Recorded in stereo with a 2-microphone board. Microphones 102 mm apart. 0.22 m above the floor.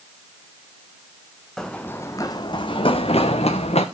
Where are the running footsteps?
5° left (ahead or behind), 0.8 m; by 3.9 s 75° left (ahead or behind), 1.4 m.